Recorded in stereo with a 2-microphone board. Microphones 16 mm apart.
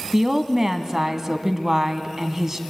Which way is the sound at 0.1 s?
30° right (ahead or behind).